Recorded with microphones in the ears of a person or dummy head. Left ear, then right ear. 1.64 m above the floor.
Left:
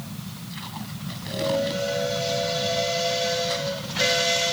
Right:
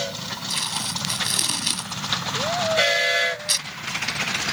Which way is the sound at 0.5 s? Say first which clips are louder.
Right 12 dB; 80° right.